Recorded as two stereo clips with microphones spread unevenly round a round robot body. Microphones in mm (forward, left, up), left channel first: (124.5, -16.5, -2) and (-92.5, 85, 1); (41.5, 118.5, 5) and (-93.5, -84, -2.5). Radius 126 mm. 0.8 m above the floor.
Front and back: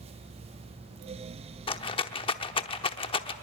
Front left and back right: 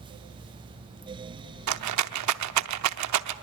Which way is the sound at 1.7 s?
95° right.